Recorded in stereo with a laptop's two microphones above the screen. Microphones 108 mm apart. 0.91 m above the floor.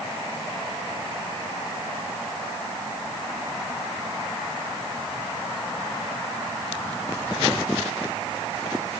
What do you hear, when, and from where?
Only background noise.